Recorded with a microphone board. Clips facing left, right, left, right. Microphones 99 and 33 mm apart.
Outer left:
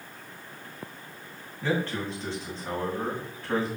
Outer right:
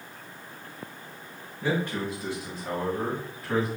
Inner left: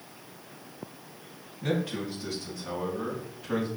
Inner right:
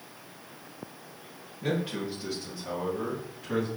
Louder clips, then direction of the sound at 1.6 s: Outer right 1 dB, even; 15° right (ahead or behind).